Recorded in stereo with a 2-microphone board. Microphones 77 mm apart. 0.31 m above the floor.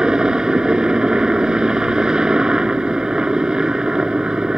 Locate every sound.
0.0 s a helicopter: 10° right (ahead or behind)